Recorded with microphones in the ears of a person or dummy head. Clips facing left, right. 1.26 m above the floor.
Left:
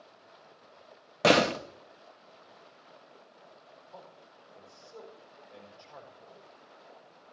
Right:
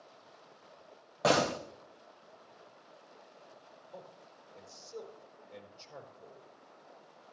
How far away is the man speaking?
About 4 m.